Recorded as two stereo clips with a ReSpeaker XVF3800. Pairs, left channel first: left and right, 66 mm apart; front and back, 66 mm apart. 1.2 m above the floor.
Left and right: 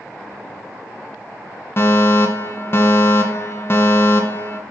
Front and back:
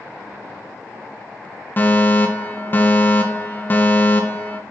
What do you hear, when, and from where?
1.8 s a fire alarm: 50° left, 1.7 m